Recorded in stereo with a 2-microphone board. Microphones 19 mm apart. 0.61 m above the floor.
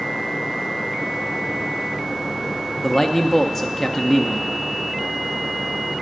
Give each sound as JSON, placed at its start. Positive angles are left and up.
{"t": 2.8, "sound": "a man speaking", "side_deg": 20, "distance_m": 0.5}